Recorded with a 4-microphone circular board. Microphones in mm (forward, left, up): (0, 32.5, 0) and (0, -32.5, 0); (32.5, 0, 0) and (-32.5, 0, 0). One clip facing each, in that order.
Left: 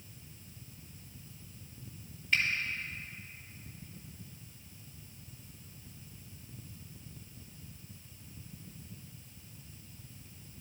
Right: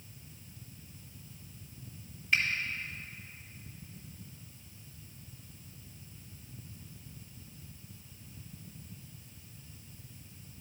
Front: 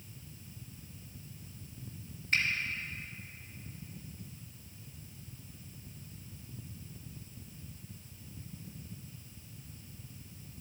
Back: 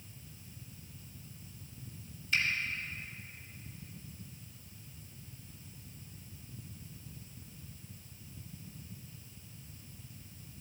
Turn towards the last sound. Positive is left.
turn(degrees=-5)